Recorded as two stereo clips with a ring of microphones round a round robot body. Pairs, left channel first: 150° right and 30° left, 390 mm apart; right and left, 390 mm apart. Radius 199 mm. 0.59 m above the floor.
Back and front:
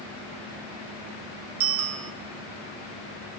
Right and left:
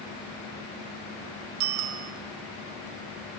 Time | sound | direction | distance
1.6 | a bicycle bell | 85° left | 2.5 m